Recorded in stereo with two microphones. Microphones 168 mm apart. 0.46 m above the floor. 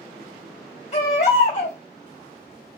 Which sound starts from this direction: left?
A baby crying, at 0.9 s.